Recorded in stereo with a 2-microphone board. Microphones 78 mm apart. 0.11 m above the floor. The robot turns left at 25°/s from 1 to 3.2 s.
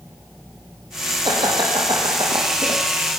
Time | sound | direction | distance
1.2 | laughter | 70° right (ahead or behind) | 5 m